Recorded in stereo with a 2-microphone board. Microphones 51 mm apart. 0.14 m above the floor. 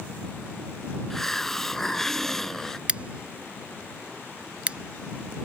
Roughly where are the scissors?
Right.